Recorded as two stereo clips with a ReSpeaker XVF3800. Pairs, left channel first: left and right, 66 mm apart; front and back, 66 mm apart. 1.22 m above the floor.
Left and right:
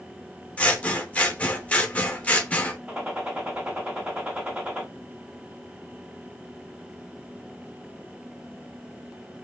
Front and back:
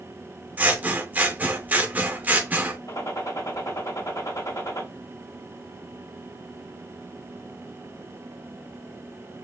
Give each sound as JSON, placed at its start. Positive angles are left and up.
{"t": 0.6, "sound": "scissors", "azimuth_deg": 140, "distance_m": 0.6}
{"t": 2.9, "sound": "a gunshot", "azimuth_deg": -15, "distance_m": 1.7}